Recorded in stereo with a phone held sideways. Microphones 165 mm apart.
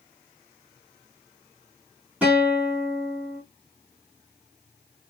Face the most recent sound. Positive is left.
turn(degrees=-10)  # may be behind; listen again after turning